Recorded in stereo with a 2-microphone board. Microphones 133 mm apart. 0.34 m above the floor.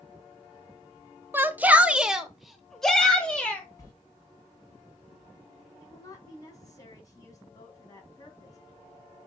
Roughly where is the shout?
Centre.